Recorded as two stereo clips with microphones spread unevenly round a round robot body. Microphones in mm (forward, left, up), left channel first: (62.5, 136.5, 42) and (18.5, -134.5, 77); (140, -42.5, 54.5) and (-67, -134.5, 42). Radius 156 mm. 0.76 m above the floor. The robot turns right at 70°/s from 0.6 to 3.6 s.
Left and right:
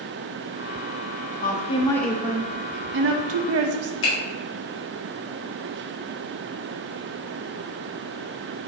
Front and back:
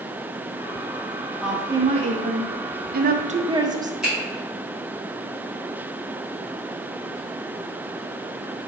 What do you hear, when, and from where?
1.4 s a woman speaking: 115° left, 0.7 m; by 3.9 s 90° right, 0.7 m
4.0 s a finger snap: 115° left, 1.6 m